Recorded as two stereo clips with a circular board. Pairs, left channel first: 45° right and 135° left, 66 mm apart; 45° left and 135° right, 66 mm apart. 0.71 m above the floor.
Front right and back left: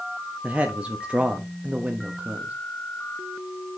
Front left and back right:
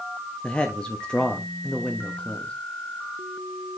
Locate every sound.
0.4 s a man speaking: 95° left, 0.9 m